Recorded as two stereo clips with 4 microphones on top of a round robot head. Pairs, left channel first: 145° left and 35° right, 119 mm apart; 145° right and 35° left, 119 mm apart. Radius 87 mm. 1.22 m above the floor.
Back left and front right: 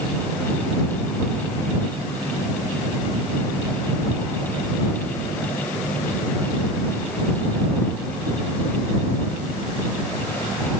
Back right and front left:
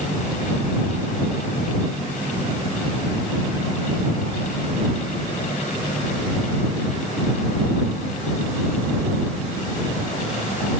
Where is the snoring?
I don't hear snoring.